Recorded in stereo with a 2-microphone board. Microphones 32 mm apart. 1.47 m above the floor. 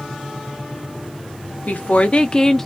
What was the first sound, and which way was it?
A woman speaking, 60° left (ahead or behind).